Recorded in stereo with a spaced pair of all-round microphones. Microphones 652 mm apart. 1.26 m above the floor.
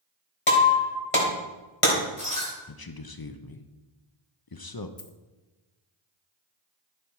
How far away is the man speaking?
About 0.7 m.